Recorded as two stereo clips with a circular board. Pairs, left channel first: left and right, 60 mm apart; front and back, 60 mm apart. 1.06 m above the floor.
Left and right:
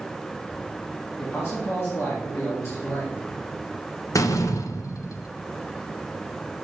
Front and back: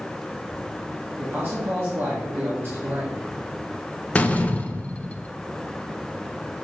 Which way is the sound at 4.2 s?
65° left.